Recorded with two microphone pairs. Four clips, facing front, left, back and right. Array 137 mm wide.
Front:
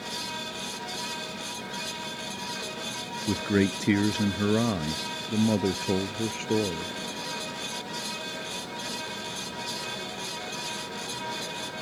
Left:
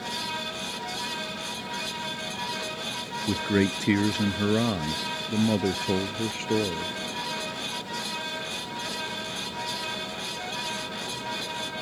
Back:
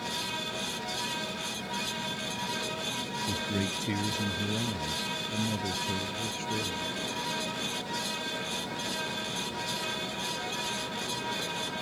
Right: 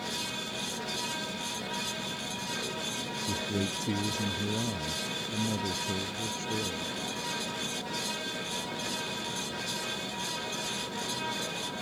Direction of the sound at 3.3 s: 40° left.